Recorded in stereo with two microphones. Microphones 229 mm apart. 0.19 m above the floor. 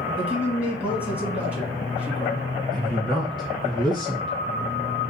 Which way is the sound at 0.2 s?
5° right (ahead or behind).